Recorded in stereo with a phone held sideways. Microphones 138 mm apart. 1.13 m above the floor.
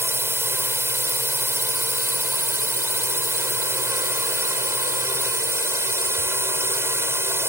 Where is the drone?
15° right (ahead or behind).